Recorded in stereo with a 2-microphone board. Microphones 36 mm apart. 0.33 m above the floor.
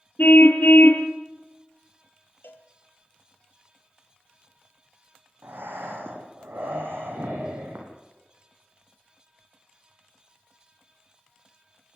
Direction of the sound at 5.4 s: 85° right.